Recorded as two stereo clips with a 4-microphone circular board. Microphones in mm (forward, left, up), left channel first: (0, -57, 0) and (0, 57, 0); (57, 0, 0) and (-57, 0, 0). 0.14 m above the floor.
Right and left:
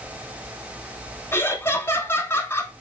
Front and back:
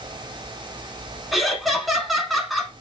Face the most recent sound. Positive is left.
turn(degrees=-90)